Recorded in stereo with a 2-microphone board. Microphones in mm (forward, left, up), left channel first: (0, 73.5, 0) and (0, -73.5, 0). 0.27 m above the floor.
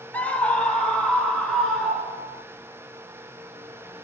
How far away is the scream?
About 1.0 m.